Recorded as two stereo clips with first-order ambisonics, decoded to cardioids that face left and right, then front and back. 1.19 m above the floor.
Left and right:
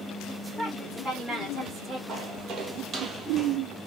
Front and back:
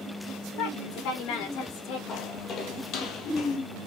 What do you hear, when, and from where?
0.6 s a woman speaking: straight ahead, 3.5 m; by 2.0 s 20° right, 2.5 m
2.1 s footsteps: 45° right, 1.8 m; by 3.6 s 15° right, 1.4 m